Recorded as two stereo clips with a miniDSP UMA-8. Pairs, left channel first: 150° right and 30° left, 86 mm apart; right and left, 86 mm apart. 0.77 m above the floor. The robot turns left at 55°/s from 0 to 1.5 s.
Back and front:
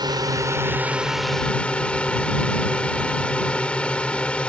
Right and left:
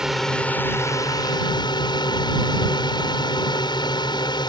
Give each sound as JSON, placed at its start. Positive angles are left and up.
{"t": 0.0, "sound": "a drone", "azimuth_deg": 10}